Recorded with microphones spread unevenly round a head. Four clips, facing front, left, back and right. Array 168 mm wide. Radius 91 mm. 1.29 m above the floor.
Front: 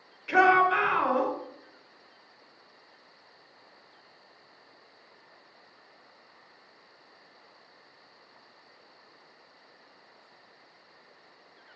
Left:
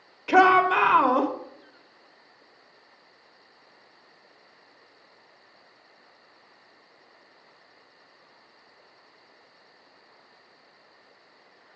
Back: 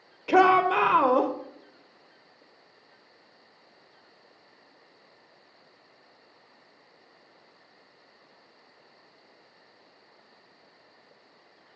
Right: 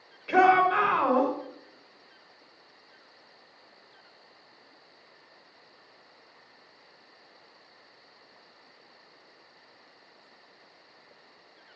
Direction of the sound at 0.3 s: 160° left.